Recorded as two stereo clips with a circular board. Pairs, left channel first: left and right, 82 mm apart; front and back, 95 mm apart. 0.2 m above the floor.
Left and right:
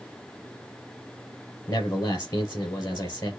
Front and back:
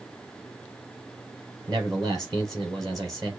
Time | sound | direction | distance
1.7 | a man speaking | 135° left | 3.5 m